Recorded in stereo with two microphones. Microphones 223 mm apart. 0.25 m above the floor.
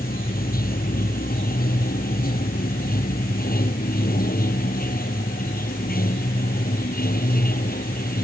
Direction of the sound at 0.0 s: 40° left (ahead or behind).